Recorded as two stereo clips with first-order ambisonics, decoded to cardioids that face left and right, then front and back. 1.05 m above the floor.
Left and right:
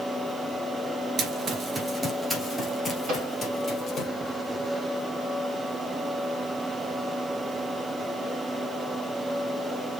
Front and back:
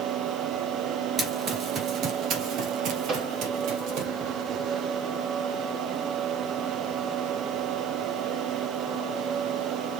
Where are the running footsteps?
115° right, 1.1 m; by 4.1 s 160° left, 2 m.